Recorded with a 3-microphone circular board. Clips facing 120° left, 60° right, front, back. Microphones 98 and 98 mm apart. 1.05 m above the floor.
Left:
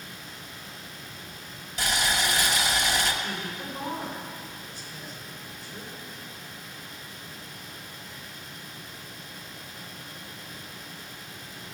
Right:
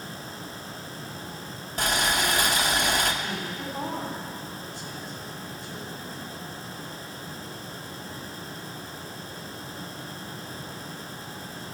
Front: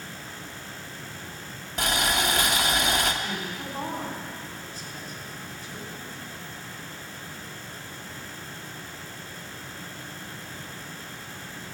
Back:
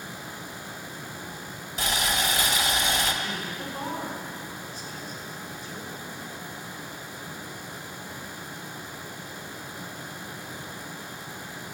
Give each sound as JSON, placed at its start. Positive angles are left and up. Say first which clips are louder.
{"t": 1.8, "sound": "boiling", "louder": "right 2 dB, front 2 dB", "azimuth_deg": -25, "distance_m": 1.0}
{"t": 3.2, "sound": "a woman speaking", "louder": "right 2 dB, even", "azimuth_deg": -55, "distance_m": 3.5}